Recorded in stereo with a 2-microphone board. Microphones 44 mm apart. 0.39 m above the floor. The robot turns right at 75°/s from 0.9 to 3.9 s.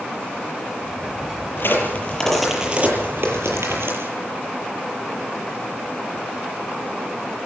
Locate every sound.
1.6 s a crack: 65° left (ahead or behind), 8 m; by 4.1 s 70° right (ahead or behind), 8 m